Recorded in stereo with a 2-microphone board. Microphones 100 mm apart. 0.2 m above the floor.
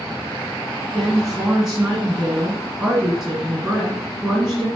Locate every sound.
0.9 s a woman speaking: 15° right (ahead or behind), 1.6 m